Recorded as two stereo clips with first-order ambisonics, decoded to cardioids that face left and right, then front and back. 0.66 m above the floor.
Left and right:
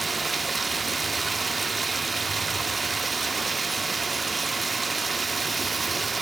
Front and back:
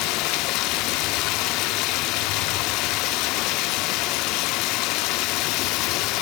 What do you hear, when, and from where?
0.0 s running water: 15° right, 1.0 m